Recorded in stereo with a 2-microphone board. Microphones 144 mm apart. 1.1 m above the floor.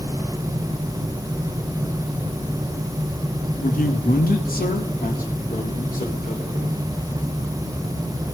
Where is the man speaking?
70° left (ahead or behind), 1.3 m; by 6.8 s 60° left (ahead or behind), 4 m.